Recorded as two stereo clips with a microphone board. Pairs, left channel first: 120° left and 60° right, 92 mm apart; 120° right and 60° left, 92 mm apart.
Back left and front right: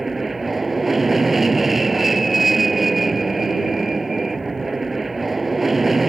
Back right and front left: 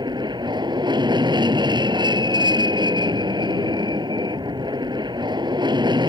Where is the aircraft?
30° left.